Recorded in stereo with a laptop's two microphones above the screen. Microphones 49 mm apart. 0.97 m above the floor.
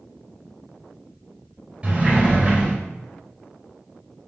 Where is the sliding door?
25° right (ahead or behind), 1.5 m.